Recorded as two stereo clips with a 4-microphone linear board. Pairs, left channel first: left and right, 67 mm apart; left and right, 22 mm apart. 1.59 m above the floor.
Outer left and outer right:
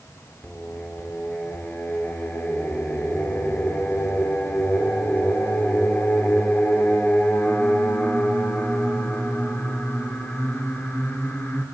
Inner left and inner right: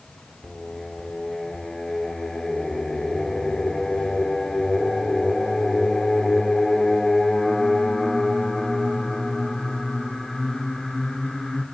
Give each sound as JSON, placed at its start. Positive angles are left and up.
{"t": 0.4, "sound": "singing", "side_deg": 25, "distance_m": 2.0}